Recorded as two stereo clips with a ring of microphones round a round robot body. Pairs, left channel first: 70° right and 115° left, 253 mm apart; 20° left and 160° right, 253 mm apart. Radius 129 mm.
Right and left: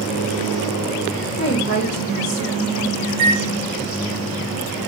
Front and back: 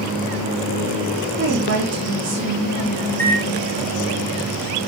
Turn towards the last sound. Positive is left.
turn(degrees=105)